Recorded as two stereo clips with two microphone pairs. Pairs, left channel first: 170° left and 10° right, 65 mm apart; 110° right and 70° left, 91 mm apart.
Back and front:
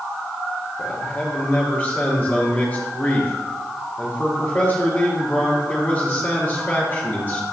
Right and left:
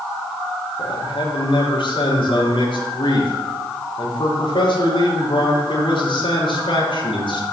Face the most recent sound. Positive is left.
turn(degrees=-125)